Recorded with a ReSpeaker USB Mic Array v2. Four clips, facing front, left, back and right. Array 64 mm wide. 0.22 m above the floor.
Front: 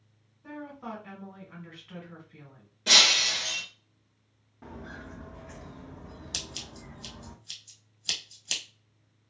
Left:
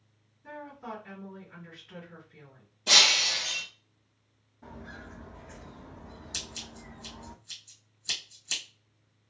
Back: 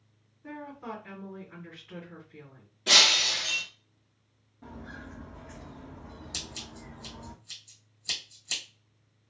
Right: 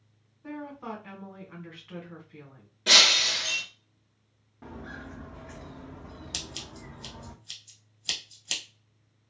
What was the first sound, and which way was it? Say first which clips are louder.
A woman speaking: right 3 dB, even; 70° right.